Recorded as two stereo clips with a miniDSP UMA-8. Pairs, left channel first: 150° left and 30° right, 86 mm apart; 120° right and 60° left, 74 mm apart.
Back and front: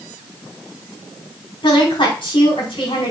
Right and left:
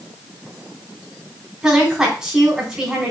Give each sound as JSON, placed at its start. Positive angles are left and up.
{"t": 1.6, "sound": "a woman speaking", "azimuth_deg": 140, "distance_m": 4.5}